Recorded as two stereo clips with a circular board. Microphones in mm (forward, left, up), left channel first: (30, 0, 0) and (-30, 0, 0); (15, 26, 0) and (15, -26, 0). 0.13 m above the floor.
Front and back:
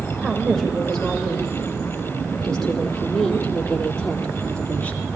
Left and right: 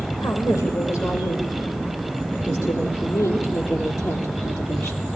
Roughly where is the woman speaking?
Left.